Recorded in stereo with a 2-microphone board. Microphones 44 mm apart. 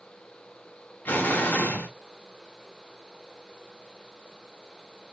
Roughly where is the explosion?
Left.